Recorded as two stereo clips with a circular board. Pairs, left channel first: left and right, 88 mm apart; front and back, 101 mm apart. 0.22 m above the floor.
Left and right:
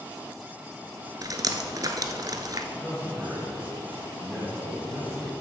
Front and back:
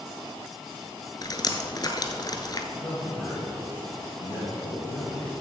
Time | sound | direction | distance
1.2 | dripping | 50° right | 1.0 m
2.7 | a man speaking | 10° left | 3.5 m